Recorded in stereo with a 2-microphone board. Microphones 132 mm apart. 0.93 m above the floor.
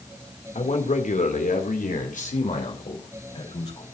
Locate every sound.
0.6 s a man speaking: 60° left (ahead or behind), 2.5 m; by 3.8 s 50° left (ahead or behind), 4 m